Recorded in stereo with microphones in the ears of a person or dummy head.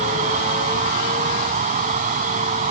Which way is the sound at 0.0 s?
40° right (ahead or behind).